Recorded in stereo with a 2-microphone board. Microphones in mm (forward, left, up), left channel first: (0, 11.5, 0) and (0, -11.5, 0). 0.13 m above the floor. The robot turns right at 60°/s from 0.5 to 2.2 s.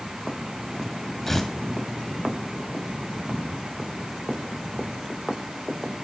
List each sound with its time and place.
1.3 s tearing paper: 10° left (ahead or behind), 1.5 m; by 1.5 s 5° left (ahead or behind), 1.5 m